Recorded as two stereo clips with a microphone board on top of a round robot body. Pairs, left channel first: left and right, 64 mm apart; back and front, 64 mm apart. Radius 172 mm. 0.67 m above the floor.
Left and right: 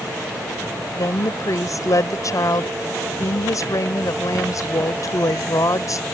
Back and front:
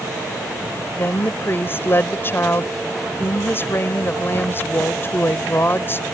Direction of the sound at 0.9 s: 125° left.